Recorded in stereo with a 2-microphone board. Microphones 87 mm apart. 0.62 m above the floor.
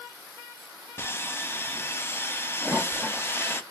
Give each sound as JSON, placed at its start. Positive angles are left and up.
{"t": 1.0, "sound": "sawing", "side_deg": 25, "distance_m": 0.6}
{"t": 2.6, "sound": "a toilet flushing", "side_deg": 0, "distance_m": 1.6}